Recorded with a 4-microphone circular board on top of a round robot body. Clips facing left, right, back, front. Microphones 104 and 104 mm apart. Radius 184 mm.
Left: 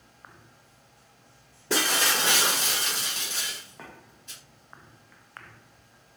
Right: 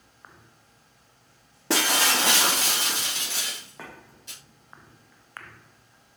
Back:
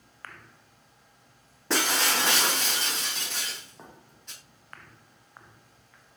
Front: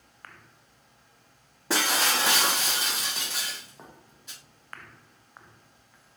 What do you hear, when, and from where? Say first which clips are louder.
1.7 s breaking glass: right 2 dB, even; 85° right, 0.6 m